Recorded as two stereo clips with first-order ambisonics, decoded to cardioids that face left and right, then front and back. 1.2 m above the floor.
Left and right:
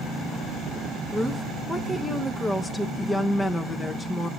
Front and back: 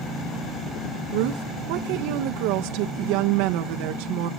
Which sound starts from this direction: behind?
A woman speaking, at 1.1 s.